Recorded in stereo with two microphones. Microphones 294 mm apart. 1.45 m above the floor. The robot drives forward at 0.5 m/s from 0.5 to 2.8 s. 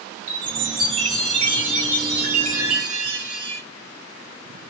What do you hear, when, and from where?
0.3 s a chime: 85° right, 5.5 m; by 3.6 s 75° right (ahead or behind), 5.5 m